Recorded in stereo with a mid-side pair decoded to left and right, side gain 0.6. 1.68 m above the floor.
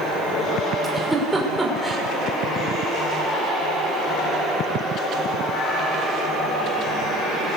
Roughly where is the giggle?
Ahead.